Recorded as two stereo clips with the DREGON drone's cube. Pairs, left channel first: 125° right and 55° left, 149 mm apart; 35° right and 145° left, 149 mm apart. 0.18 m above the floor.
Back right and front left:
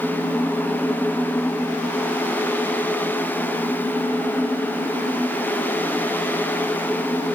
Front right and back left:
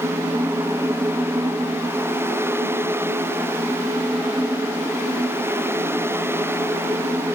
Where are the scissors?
No scissors in this recording.